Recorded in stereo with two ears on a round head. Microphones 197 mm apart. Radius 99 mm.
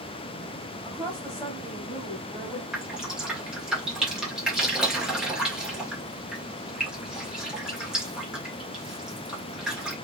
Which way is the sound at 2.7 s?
5° right (ahead or behind).